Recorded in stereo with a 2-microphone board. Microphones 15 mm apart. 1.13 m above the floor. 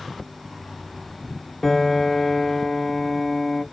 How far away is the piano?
About 0.9 m.